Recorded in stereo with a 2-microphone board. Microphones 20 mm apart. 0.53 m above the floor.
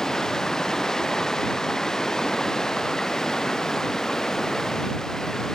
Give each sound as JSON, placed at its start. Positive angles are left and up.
{"t": 0.0, "sound": "running water", "side_deg": 35}